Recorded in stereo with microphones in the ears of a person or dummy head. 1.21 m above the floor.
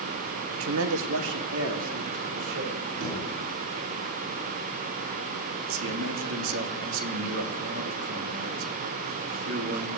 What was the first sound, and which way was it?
A man speaking, 75° right (ahead or behind).